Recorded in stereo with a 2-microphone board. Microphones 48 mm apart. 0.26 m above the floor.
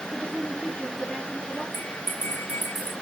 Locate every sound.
0.1 s a woman speaking: 20° left (ahead or behind), 4.5 m
1.7 s a bell: 35° left (ahead or behind), 2.5 m